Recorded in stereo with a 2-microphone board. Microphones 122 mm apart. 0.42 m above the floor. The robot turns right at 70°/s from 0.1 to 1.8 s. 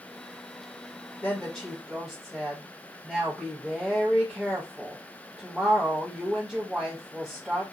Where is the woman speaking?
145° left, 1.3 m; by 7.6 s 170° right, 1.3 m.